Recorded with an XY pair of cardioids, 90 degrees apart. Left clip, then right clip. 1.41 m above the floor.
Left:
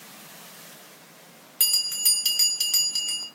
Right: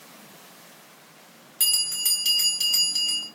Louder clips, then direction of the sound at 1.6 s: Left 1 dB; 25° left.